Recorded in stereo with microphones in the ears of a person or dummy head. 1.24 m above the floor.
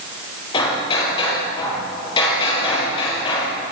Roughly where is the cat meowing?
I don't hear a cat meowing.